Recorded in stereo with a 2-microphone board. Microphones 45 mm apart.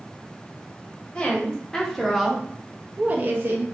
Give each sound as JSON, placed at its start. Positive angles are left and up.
{"t": 1.1, "sound": "a woman speaking", "side_deg": 20, "distance_m": 1.5}